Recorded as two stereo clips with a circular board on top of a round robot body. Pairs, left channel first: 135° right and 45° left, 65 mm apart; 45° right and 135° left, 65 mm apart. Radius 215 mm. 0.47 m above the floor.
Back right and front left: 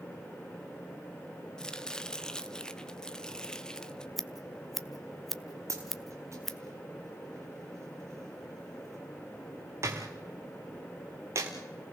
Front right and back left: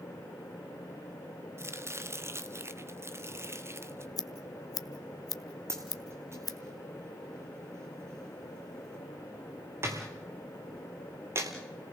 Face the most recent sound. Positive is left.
turn(degrees=85)